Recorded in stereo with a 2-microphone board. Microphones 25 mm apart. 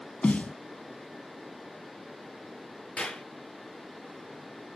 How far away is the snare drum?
About 0.6 m.